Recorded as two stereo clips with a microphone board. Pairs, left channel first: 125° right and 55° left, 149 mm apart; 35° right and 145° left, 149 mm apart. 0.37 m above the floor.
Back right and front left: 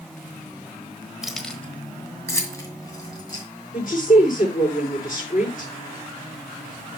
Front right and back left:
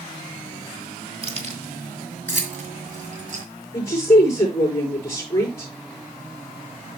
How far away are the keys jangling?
About 1.1 m.